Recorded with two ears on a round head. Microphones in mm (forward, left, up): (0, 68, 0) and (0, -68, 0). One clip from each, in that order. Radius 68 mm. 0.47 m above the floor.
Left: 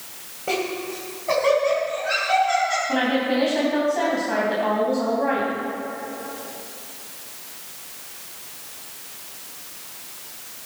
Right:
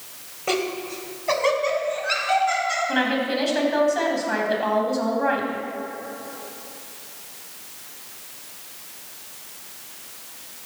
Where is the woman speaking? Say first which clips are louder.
Left 1 dB; 45° right (ahead or behind), 3 m.